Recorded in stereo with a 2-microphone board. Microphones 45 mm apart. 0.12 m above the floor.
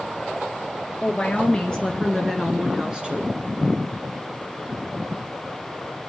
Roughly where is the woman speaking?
Left.